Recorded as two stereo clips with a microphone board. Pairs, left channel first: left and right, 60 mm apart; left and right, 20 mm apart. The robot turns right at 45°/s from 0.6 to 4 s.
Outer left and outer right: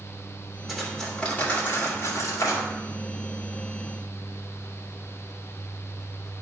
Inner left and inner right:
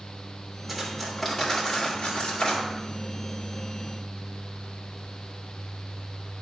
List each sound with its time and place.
0.7 s cutlery clinking: 5° right (ahead or behind), 2.5 m; by 2.7 s 70° left (ahead or behind), 2.5 m